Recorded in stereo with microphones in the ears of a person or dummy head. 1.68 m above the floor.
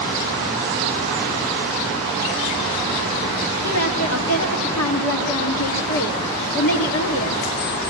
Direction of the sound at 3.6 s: 75° left (ahead or behind).